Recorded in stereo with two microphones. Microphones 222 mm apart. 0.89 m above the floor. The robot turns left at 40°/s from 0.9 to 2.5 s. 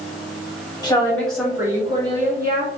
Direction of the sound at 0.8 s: 20° left.